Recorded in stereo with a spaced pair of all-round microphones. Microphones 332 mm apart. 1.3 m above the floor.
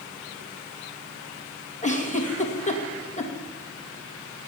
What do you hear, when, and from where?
1.8 s a giggle: 25° left (ahead or behind), 2.5 m